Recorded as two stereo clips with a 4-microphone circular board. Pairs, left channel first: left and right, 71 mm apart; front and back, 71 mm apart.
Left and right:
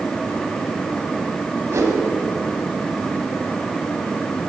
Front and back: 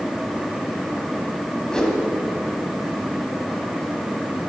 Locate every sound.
1.7 s a whoosh: 75° right, 1.7 m